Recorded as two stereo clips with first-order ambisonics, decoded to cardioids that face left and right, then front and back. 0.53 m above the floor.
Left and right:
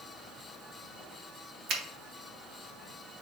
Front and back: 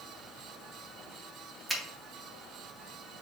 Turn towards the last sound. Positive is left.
turn(degrees=-90)